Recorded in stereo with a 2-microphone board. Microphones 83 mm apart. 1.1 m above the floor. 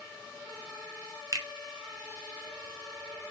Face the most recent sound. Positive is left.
turn(degrees=-40)  # may be behind; listen again after turning